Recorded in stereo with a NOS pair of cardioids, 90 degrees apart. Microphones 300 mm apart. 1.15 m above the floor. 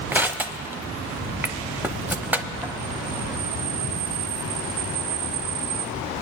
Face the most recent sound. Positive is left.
turn(degrees=-5)